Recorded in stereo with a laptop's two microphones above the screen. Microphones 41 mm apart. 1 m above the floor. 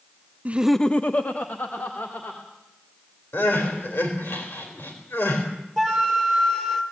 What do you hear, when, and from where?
0.5 s laughter: 40° right (ahead or behind), 0.6 m; by 2.4 s 60° left (ahead or behind), 3 m
3.3 s crying: 70° left (ahead or behind), 4 m
5.8 s a flute: 10° left (ahead or behind), 3 m